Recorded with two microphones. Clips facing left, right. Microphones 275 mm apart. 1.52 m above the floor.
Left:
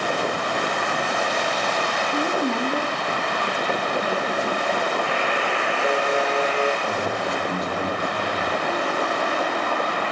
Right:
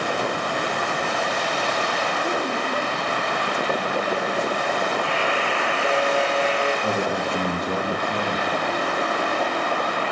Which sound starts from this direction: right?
A man speaking, at 6.8 s.